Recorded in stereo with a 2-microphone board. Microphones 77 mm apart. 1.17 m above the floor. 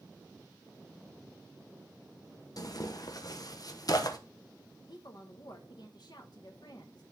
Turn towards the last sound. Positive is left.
turn(degrees=60)  # may be behind; listen again after turning